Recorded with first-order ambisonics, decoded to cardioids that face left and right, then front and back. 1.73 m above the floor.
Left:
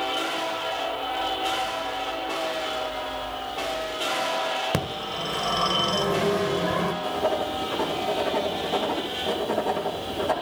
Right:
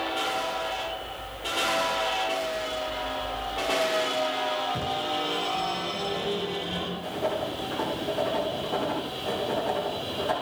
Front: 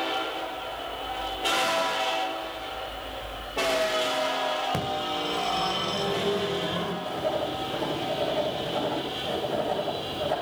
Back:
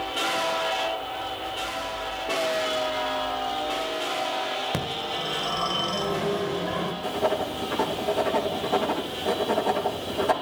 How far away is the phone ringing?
About 1.3 m.